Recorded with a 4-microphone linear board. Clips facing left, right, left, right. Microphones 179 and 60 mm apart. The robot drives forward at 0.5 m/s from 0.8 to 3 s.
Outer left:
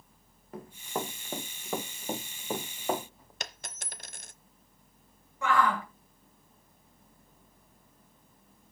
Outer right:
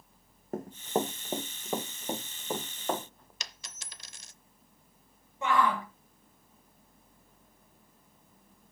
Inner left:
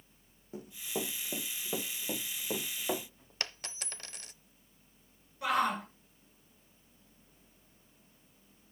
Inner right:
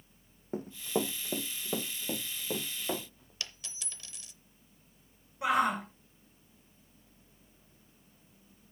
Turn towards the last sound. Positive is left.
turn(degrees=-20)  # may be behind; listen again after turning